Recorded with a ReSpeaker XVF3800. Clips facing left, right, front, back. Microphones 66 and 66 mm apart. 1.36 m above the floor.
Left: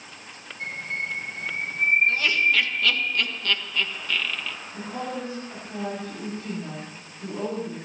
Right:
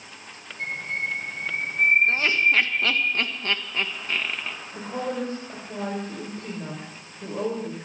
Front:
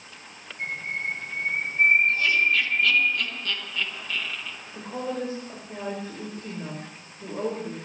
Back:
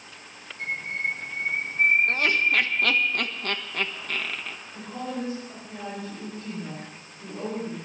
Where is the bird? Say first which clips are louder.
Right 2 dB, back 1 dB; 60° right, 10 m.